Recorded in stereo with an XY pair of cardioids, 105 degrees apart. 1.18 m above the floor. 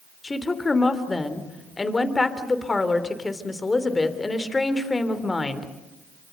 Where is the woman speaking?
25° left, 3 m.